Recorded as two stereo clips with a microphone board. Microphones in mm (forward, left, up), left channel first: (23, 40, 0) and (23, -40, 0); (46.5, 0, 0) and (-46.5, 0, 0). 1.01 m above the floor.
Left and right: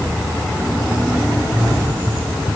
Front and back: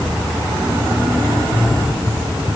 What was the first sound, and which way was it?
Only background noise.